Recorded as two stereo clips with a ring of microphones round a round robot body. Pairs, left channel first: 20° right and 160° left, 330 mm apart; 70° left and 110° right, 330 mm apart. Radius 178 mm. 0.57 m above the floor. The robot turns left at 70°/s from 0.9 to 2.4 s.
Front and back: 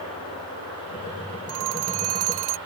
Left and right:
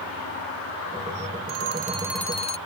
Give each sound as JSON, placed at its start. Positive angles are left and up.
{"t": 1.5, "sound": "a phone ringing", "azimuth_deg": -155}